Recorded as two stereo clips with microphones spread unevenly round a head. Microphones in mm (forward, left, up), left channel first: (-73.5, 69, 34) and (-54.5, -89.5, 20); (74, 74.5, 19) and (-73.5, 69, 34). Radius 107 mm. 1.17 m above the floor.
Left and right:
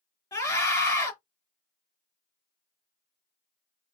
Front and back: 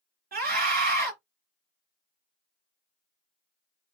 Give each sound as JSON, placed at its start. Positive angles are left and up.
{"t": 0.3, "sound": "a scream", "azimuth_deg": 165, "distance_m": 3.0}